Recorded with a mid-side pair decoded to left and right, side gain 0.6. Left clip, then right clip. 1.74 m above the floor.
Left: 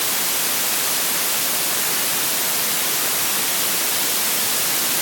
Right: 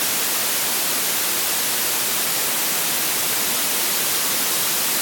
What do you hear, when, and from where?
Only background noise.